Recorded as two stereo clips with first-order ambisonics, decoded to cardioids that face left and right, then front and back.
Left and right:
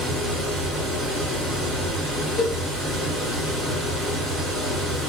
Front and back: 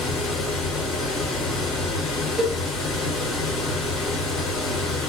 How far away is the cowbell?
About 1.0 m.